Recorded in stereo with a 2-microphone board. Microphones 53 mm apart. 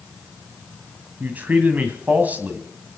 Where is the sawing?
I don't hear sawing.